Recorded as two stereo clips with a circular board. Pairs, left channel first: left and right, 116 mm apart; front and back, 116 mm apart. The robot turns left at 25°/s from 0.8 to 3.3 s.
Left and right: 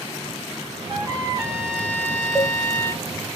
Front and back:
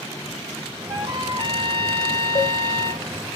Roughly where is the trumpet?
Behind right.